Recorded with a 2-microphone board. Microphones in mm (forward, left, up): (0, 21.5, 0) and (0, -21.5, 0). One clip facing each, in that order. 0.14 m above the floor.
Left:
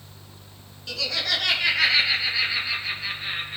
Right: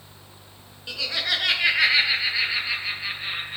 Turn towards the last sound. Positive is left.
turn(degrees=-10)  # may be behind; listen again after turning